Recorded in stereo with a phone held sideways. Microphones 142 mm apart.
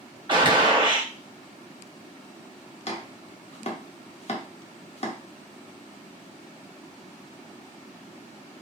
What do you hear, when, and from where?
0.3 s a gunshot: 35° right (ahead or behind), 0.8 m
2.9 s chopping: 50° left (ahead or behind), 0.6 m